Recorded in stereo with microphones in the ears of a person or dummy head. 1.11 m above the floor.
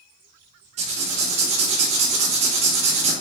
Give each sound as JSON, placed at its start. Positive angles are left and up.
{"t": 0.8, "sound": "writing", "side_deg": -20, "distance_m": 0.6}